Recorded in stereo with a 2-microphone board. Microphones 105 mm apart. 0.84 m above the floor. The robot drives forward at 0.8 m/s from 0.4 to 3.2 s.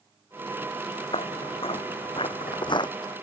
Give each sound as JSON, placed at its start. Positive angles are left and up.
{"t": 1.1, "sound": "footsteps", "side_deg": 65}